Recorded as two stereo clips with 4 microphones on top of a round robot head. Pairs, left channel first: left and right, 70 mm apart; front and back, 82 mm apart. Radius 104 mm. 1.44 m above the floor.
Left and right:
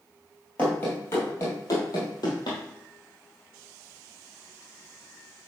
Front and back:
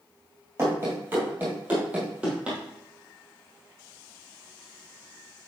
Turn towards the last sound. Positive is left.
turn(degrees=100)